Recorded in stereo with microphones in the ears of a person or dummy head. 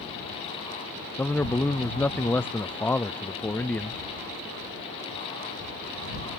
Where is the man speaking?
10° left (ahead or behind).